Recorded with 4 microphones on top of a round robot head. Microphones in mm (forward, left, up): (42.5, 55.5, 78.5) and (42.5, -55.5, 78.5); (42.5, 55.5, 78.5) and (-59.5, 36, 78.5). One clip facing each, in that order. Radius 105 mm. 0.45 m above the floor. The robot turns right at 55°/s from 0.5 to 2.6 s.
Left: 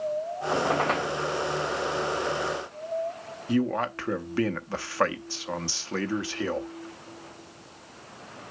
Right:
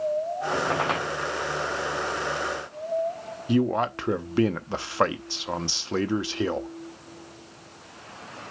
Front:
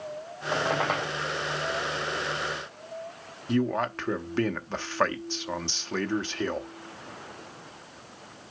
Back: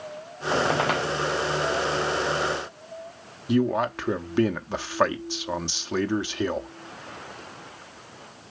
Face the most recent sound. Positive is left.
turn(degrees=-110)